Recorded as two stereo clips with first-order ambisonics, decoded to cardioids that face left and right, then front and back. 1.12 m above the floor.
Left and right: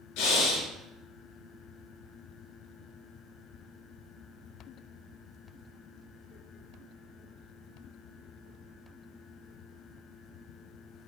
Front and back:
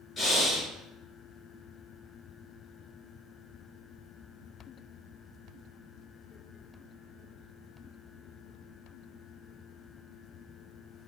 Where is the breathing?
70° left, 3 m.